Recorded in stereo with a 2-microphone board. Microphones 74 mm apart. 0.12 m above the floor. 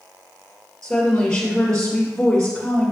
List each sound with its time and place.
0.8 s a woman speaking: 10° left (ahead or behind), 2 m